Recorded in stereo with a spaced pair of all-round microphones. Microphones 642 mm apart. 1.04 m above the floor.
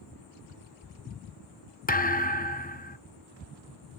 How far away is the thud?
About 0.6 m.